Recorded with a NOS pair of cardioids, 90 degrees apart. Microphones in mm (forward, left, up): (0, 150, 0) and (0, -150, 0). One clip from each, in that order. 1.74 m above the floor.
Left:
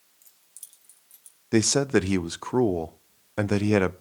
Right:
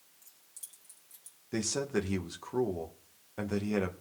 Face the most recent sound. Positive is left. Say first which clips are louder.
# left 11 dB
turn(degrees=55)